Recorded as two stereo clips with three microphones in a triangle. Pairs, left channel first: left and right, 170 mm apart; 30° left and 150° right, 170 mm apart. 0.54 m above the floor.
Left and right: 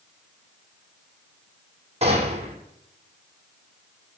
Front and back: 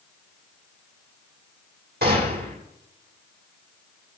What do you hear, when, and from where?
2.0 s a gunshot: 140° right, 5.5 m